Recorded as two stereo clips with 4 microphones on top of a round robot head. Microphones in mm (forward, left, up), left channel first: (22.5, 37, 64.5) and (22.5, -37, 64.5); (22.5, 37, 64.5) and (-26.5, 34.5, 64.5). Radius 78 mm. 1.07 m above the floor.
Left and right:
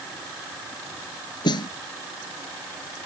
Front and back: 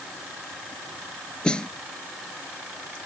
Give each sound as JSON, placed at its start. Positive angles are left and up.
{"t": 1.4, "sound": "a snare drum", "azimuth_deg": 75}